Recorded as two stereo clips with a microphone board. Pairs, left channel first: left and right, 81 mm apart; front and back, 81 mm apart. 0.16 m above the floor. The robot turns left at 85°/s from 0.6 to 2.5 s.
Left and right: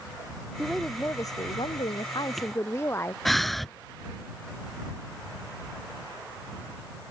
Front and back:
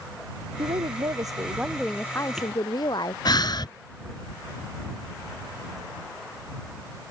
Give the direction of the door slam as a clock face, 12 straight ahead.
I don't hear a door slam.